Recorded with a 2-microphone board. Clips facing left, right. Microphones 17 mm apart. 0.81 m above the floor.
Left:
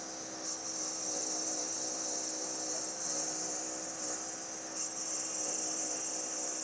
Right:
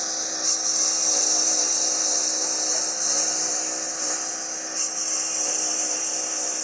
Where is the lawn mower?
55° right (ahead or behind); by 6.7 s 45° right (ahead or behind).